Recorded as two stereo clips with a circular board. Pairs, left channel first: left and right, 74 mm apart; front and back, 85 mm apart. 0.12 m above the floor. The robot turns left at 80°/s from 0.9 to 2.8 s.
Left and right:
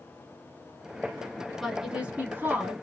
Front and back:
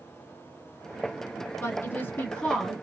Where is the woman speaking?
5° right, 1.2 m; by 2.7 s 95° right, 1.2 m.